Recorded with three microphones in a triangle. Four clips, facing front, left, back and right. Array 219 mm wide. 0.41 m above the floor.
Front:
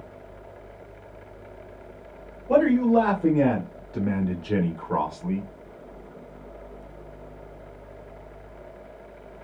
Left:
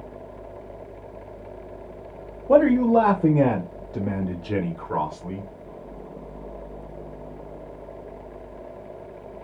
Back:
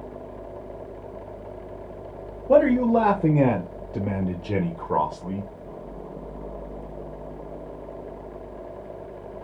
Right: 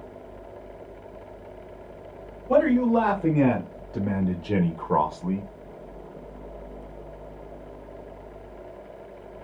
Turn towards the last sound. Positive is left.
turn(degrees=-100)